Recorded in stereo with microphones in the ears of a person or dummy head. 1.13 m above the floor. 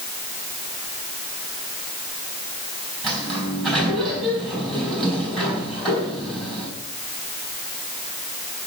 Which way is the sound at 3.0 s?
Centre (ahead or behind).